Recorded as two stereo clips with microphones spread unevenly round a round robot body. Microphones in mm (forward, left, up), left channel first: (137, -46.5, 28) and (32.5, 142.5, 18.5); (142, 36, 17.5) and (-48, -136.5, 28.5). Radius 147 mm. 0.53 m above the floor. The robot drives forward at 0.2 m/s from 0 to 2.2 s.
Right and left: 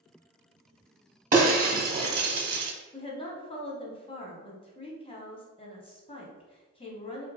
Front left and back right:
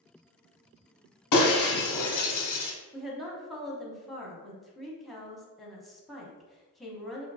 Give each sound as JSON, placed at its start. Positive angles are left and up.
{"t": 1.3, "sound": "breaking glass", "azimuth_deg": 65, "distance_m": 1.1}
{"t": 2.9, "sound": "a woman speaking", "azimuth_deg": -40, "distance_m": 0.9}